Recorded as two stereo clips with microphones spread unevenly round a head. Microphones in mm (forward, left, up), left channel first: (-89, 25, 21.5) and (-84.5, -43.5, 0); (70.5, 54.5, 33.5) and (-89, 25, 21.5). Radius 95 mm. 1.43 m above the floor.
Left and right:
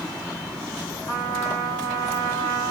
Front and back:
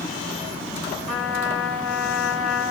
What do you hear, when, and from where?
1.1 s a trumpet: 95° left, 2 m